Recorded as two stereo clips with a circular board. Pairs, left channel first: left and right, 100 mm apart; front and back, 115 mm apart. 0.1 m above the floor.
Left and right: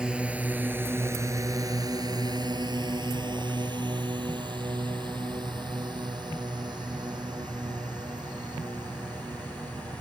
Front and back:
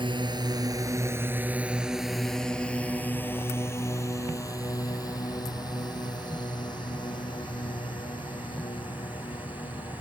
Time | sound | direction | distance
0.0 | a drone | 170° right | ?